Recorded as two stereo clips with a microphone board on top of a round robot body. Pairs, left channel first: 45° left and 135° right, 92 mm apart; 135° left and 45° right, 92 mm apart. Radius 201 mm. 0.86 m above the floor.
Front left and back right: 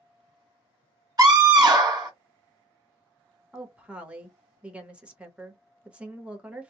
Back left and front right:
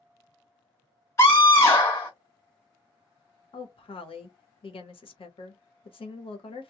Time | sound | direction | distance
1.2 | a scream | 170° right | 1.6 m
3.5 | a woman speaking | 150° left | 1.0 m